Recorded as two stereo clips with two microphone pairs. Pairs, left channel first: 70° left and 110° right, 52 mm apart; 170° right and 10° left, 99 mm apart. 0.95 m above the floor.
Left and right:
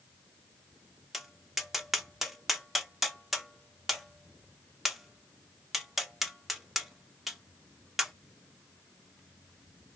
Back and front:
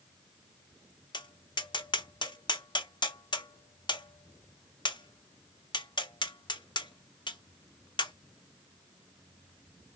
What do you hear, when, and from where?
1.1 s tapping: 165° left, 0.7 m